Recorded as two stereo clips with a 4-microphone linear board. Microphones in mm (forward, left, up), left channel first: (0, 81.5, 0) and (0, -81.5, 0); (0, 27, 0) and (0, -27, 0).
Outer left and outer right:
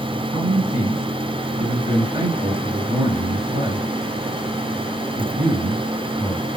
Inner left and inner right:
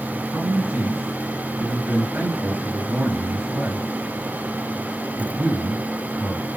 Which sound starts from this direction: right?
A man speaking, at 0.3 s.